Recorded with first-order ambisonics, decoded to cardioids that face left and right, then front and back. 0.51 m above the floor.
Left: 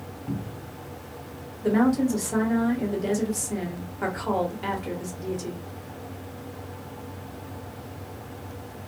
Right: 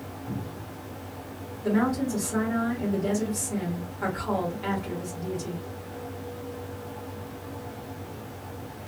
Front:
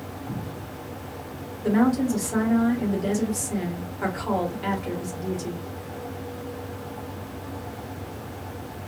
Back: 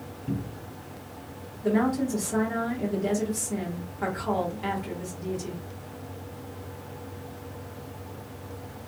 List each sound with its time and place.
0.3 s a cupboard door: 150° left, 0.6 m
1.6 s a woman speaking: 60° left, 1.3 m